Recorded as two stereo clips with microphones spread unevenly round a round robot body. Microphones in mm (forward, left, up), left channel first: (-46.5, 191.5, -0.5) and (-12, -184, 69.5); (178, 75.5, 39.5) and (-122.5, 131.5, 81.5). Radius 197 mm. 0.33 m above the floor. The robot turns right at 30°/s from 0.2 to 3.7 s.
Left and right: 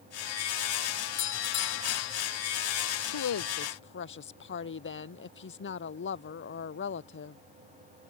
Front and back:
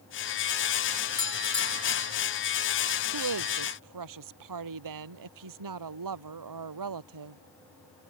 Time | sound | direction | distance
1.2 | a doorbell | 25° left | ?
3.1 | a woman speaking | 140° left | ?